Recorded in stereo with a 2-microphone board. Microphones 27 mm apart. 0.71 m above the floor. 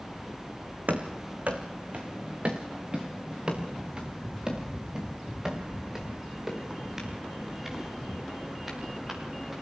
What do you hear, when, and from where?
0.9 s running footsteps: 65° right (ahead or behind), 2.5 m; by 9.5 s 10° right (ahead or behind), 9 m